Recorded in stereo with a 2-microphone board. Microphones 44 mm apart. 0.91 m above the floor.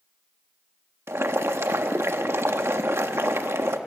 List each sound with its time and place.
1.1 s boiling: 75° right (ahead or behind), 1.2 m